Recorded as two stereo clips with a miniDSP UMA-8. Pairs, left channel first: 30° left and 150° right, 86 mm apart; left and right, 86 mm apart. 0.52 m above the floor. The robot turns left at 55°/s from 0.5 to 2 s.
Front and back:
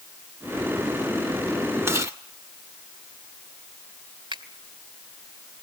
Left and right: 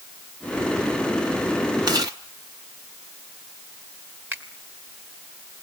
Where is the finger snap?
155° right, 2.5 m.